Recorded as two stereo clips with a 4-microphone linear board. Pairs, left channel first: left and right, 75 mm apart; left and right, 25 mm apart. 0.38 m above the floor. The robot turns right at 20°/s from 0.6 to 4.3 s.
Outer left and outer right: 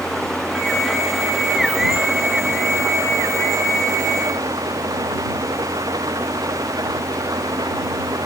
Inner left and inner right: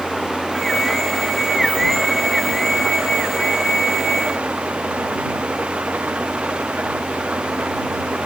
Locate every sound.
0.0 s an engine running: 170° left; by 8.3 s 115° right